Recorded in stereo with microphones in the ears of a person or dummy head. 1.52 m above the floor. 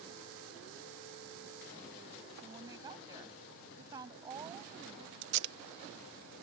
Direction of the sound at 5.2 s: 70° right (ahead or behind).